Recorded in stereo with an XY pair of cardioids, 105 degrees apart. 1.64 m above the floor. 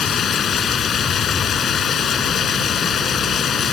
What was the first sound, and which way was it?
Running water, 55° left.